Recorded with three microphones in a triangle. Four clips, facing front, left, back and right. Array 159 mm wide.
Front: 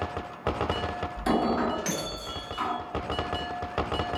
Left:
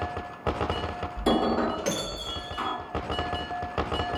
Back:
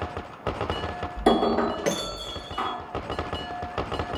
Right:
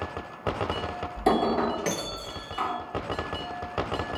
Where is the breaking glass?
155° right, 2.5 m.